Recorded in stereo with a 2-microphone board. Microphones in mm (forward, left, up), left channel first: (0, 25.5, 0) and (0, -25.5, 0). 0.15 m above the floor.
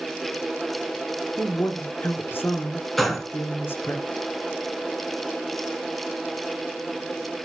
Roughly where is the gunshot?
Centre.